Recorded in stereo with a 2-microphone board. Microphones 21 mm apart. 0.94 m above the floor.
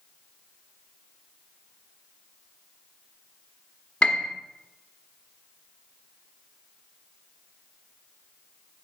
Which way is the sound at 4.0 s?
75° left (ahead or behind).